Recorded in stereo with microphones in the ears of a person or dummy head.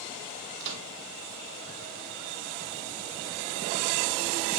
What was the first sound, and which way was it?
A microwave, 60° right (ahead or behind).